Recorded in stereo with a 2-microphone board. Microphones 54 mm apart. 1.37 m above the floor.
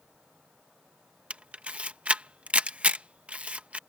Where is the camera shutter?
20° right (ahead or behind).